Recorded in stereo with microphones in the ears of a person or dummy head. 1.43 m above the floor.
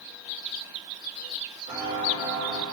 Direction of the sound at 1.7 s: 25° right (ahead or behind).